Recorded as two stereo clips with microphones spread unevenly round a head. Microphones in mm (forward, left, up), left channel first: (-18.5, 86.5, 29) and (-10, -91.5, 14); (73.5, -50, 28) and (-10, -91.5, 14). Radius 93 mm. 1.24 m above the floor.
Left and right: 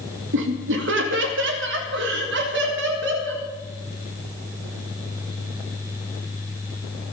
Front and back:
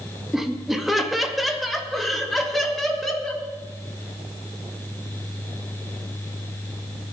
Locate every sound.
0.3 s laughter: 70° right, 1.8 m; by 3.4 s 60° right, 4 m